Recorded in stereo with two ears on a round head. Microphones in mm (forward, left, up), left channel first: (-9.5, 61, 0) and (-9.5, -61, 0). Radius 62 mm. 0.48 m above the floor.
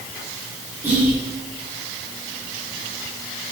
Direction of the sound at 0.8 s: 15° right (ahead or behind).